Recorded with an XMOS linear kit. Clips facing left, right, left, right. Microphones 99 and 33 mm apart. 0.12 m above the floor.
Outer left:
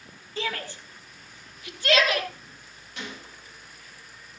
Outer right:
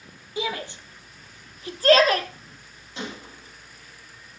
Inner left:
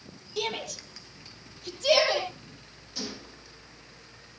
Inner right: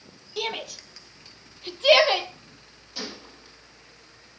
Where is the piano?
No piano in this recording.